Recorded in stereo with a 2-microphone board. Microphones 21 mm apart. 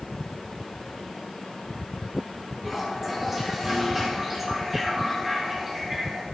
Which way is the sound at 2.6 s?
15° right (ahead or behind).